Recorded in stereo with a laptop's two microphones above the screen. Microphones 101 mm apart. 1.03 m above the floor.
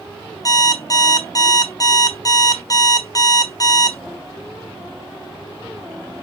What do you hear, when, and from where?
0.5 s an alarm clock: 35° left (ahead or behind), 0.8 m